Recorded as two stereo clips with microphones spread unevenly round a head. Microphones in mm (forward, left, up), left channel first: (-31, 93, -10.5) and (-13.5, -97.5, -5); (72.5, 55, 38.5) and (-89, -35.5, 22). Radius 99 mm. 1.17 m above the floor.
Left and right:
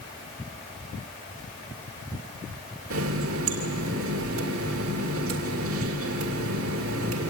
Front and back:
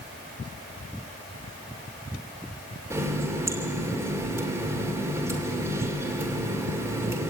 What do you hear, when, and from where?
2.9 s a running tap: 75° right, 2.5 m